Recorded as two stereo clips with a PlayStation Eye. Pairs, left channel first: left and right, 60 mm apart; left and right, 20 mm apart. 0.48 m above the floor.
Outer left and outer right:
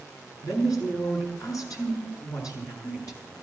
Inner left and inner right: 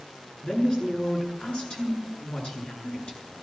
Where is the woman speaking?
70° left (ahead or behind), 8 m.